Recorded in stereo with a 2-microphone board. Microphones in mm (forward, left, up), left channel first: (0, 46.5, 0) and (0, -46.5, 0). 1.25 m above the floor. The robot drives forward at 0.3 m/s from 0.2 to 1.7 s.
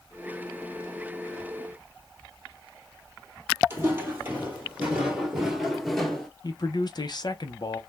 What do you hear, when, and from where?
3.7 s footsteps: 25° right (ahead or behind), 1.9 m; by 6.3 s 10° left (ahead or behind), 1.2 m
6.4 s a man speaking: 50° left (ahead or behind), 0.6 m